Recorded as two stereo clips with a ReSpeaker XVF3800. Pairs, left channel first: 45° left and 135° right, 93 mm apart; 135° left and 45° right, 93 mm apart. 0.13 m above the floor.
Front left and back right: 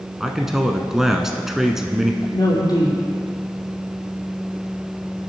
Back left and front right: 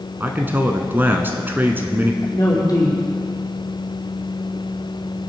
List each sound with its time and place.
0.2 s a man speaking: 55° right, 1.3 m
2.2 s a woman speaking: 85° left, 5.5 m